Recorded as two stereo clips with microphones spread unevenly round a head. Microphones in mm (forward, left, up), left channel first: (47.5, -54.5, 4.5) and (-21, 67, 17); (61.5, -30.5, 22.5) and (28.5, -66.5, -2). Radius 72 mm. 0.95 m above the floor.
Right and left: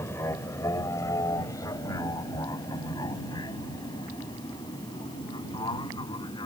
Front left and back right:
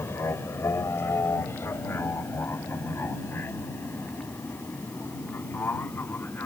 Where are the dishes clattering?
No dishes clattering in this recording.